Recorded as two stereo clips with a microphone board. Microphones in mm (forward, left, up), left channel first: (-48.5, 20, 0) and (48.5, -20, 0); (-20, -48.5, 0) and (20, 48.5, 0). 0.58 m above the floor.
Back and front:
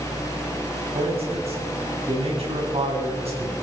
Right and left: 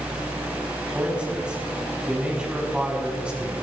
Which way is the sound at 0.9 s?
15° right.